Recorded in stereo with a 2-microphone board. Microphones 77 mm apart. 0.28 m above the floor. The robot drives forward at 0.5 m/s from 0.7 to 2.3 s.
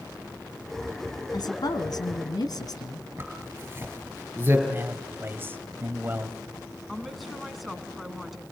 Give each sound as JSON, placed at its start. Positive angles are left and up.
{"t": 1.3, "sound": "a woman speaking", "side_deg": 65, "distance_m": 2.0}
{"t": 3.2, "sound": "a zipper", "side_deg": -30, "distance_m": 4.0}
{"t": 4.7, "sound": "a man speaking", "side_deg": -30, "distance_m": 1.8}
{"t": 6.9, "sound": "a woman speaking", "side_deg": 0, "distance_m": 3.0}